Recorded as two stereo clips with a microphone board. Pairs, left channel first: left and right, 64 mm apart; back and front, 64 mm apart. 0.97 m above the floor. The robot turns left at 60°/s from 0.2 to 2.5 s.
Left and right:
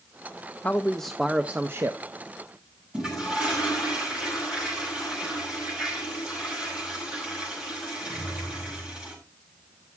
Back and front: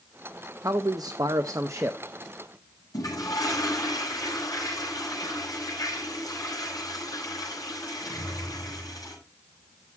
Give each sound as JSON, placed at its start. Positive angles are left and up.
{"t": 0.6, "sound": "a man speaking", "azimuth_deg": 30, "distance_m": 0.6}
{"t": 2.9, "sound": "a toilet flushing", "azimuth_deg": -170, "distance_m": 6.0}